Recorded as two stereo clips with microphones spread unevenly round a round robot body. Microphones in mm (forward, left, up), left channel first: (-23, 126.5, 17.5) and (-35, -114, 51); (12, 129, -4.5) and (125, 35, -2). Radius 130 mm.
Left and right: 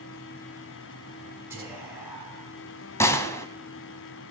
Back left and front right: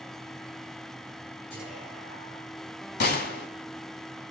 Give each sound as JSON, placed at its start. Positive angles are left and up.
{"t": 1.5, "sound": "whispering", "azimuth_deg": -170, "distance_m": 7.0}
{"t": 3.0, "sound": "a gunshot", "azimuth_deg": 170, "distance_m": 1.7}